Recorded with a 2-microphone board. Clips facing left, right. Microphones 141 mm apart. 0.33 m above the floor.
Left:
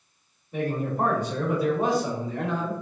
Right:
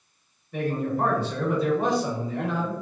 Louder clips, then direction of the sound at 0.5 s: Right 1 dB; 25° left (ahead or behind).